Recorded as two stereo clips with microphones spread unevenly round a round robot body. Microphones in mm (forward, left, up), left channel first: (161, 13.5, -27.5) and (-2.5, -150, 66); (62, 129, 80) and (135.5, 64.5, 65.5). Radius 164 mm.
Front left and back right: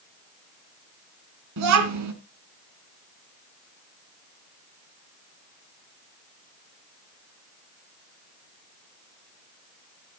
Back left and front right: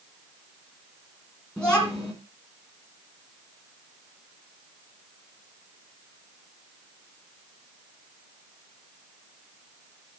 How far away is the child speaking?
About 2.5 m.